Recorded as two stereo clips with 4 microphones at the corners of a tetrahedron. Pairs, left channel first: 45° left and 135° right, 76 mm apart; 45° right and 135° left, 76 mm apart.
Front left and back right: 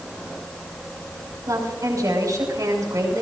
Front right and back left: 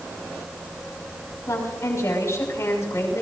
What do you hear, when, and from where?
1.5 s a woman speaking: 95° right, 6 m